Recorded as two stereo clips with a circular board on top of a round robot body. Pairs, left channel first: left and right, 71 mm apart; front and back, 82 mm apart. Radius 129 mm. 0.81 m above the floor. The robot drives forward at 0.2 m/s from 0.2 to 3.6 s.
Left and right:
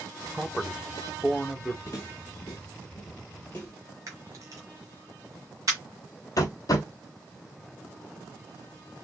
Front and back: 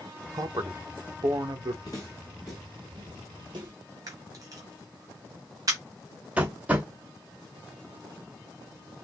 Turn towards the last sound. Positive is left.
turn(degrees=110)